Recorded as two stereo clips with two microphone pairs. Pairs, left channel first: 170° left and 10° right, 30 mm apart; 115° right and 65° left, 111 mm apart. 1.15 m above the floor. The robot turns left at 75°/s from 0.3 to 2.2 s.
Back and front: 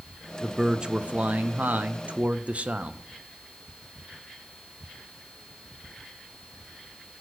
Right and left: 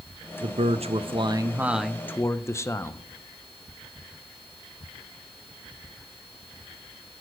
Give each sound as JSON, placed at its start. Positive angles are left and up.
{"t": 0.4, "sound": "a man speaking", "azimuth_deg": 80, "distance_m": 0.6}